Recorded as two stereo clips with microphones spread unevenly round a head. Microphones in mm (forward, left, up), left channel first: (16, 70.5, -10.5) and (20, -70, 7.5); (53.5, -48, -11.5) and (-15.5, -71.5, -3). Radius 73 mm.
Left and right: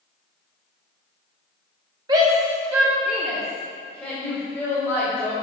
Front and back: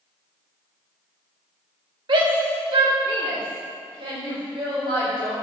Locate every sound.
2.1 s a shout: 155° right, 2 m; by 5.3 s 170° left, 5.5 m